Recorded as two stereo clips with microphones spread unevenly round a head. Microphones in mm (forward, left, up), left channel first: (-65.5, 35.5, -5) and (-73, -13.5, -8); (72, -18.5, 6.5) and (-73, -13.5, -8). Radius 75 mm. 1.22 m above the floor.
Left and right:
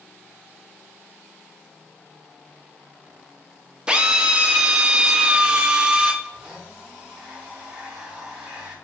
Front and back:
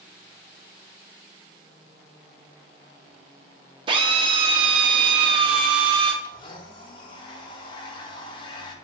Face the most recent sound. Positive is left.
turn(degrees=-35)